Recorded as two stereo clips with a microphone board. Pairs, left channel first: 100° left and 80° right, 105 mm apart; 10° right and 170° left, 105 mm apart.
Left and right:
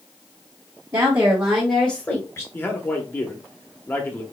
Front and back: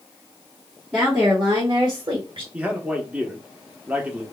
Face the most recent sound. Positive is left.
turn(degrees=125)